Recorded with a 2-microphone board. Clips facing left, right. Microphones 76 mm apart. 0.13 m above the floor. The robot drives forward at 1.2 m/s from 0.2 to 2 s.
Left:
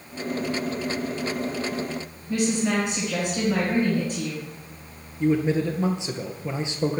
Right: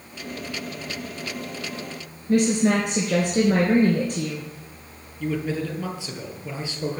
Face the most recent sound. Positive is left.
turn(degrees=25)  # may be behind; listen again after turning